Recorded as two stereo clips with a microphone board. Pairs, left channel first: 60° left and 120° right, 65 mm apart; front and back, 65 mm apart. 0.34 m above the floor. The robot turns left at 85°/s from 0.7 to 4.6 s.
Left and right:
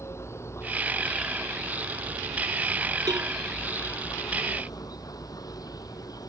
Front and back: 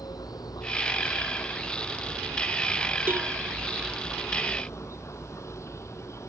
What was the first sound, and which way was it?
An insect, 15° left.